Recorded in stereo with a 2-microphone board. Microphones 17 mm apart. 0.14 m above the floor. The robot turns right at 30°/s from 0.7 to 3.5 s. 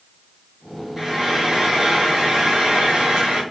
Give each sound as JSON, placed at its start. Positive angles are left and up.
{"t": 1.0, "sound": "frying", "azimuth_deg": -145, "distance_m": 1.1}